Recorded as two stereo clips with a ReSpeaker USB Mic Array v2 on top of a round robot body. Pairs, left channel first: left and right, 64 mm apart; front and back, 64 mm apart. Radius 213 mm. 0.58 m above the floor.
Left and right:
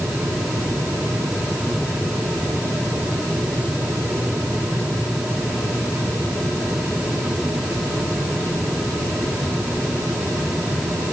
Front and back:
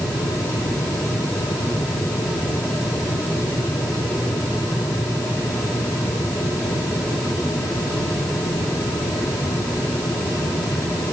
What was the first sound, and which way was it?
Only background noise.